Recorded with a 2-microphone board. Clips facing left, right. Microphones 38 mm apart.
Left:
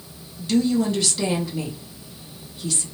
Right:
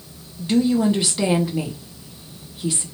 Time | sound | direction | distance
0.4 | a woman speaking | 20° right (ahead or behind) | 0.7 m